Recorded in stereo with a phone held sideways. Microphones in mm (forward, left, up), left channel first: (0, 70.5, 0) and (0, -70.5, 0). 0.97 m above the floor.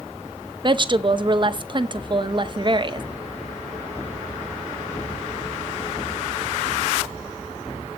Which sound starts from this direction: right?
A woman speaking, at 0.6 s.